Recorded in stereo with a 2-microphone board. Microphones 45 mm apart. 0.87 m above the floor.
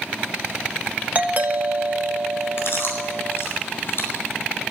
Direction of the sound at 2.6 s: 60° left (ahead or behind).